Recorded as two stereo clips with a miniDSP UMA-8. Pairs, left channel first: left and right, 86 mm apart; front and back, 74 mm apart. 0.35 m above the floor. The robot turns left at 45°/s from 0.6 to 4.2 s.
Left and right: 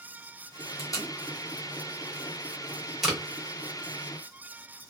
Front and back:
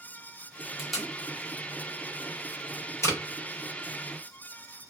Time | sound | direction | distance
0.8 | tape being pulled | 95° left | 0.9 m